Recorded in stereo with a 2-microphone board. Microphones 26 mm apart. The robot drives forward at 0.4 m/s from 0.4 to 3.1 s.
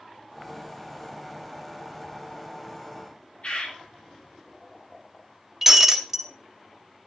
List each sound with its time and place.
3.4 s a bird: 50° left (ahead or behind), 3 m
5.6 s breaking glass: 10° right (ahead or behind), 1.5 m